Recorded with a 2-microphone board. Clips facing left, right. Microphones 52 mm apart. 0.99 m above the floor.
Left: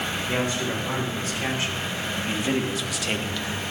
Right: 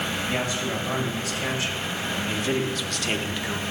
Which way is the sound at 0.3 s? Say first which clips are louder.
Left 3 dB; 40° left (ahead or behind).